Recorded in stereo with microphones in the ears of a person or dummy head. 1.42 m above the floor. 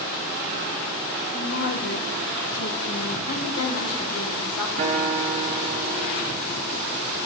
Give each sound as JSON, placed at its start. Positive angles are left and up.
{"t": 1.3, "sound": "a woman speaking", "side_deg": 45, "distance_m": 0.8}
{"t": 3.3, "sound": "a woman speaking", "side_deg": 80, "distance_m": 1.4}
{"t": 4.8, "sound": "a guitar", "side_deg": -40, "distance_m": 0.6}